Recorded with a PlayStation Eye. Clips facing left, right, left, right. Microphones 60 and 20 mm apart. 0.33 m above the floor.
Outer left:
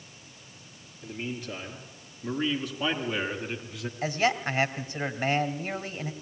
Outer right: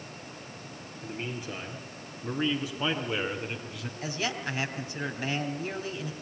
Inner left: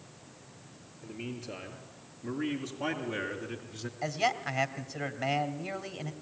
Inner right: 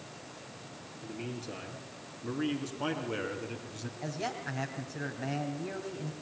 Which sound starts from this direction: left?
A man speaking, at 4.0 s.